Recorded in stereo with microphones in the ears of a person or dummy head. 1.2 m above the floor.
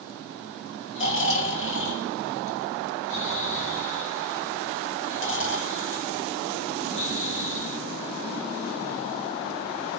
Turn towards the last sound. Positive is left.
turn(degrees=55)  # may be behind; listen again after turning